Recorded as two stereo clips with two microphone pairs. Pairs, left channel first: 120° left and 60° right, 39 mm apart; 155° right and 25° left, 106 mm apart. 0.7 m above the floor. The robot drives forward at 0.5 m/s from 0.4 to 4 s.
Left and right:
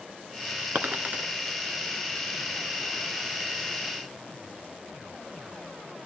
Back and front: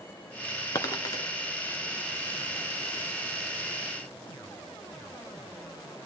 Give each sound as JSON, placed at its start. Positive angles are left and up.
{"t": 0.8, "sound": "a dropped coin", "azimuth_deg": -95, "distance_m": 1.5}